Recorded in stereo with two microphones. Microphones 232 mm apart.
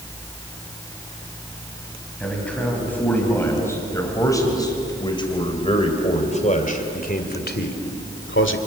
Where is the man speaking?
5° left (ahead or behind), 5 m; by 8.6 s 60° left (ahead or behind), 2.5 m.